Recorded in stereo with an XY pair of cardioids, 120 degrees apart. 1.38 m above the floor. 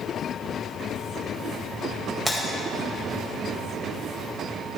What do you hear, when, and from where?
2.2 s breaking glass: 5° right, 3 m